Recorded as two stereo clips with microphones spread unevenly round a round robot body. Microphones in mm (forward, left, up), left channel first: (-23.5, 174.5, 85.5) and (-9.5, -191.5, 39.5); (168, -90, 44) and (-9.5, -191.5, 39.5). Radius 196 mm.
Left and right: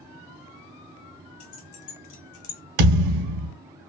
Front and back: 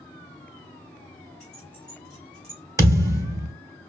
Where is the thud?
75° right, 2.5 m.